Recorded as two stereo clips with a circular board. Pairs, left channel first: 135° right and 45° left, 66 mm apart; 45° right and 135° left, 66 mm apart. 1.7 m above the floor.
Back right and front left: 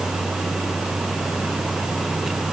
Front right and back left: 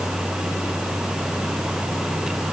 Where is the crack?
No crack in this recording.